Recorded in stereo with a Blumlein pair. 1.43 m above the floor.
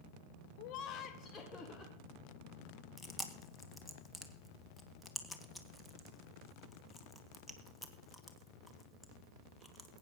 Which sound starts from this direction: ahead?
Chewing, at 3.0 s.